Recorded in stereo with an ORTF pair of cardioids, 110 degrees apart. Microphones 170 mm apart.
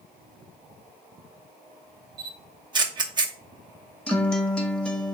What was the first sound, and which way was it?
A camera shutter, 25° right.